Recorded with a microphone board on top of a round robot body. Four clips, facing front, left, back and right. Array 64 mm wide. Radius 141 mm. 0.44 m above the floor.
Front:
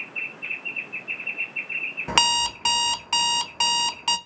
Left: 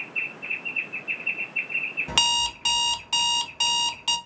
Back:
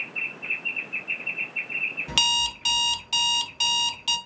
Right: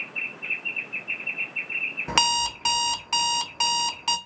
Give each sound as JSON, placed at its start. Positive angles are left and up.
{"t": 2.1, "sound": "an alarm clock", "azimuth_deg": -25, "distance_m": 0.5}